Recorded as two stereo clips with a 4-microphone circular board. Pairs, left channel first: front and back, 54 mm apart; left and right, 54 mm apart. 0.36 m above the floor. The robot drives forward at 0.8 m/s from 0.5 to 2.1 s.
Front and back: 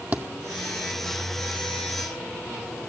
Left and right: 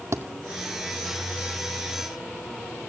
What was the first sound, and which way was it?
A thud, 120° right.